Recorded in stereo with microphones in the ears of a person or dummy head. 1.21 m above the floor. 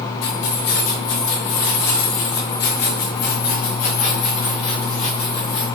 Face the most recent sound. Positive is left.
turn(degrees=30)  # may be behind; listen again after turning